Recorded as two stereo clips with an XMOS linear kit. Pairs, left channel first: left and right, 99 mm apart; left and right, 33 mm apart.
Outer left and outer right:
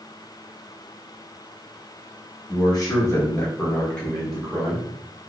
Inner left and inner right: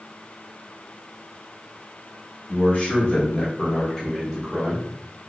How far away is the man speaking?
About 1.6 m.